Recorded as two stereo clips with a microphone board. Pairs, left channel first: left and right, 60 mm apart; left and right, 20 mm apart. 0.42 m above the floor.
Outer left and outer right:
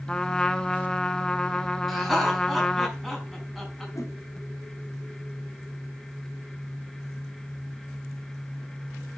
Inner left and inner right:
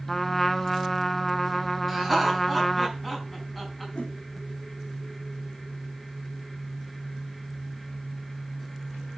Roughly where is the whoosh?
Left.